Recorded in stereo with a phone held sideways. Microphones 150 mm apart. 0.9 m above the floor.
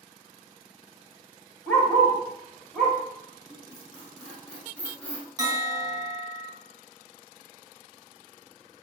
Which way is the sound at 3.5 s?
5° left (ahead or behind).